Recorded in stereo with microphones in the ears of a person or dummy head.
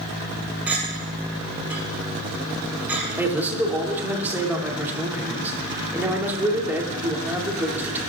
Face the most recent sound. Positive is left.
turn(degrees=-10)  # may be behind; listen again after turning